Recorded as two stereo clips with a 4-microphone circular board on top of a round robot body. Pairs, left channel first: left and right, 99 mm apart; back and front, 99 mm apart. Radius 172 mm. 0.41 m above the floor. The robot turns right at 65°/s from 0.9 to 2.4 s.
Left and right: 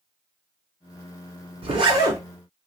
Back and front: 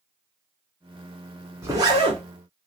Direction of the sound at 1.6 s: 65° right.